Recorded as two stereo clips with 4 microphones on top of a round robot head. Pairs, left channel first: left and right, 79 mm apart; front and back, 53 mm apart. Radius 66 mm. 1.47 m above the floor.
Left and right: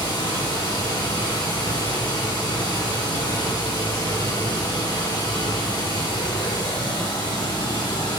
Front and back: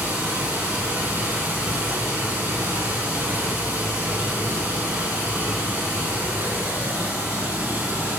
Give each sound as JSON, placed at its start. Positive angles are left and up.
{"t": 0.0, "sound": "running water", "azimuth_deg": 120, "distance_m": 3.5}